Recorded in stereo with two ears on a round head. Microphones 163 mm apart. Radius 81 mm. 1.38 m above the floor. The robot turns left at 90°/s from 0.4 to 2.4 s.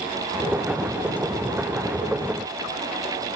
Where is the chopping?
No chopping in this recording.